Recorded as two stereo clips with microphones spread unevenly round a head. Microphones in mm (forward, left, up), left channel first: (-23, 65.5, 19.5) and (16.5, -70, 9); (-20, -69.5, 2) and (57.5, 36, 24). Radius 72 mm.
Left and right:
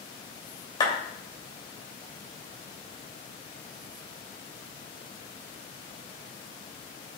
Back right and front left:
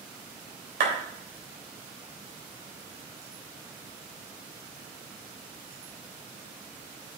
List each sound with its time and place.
0.8 s a clap: 45° left, 3 m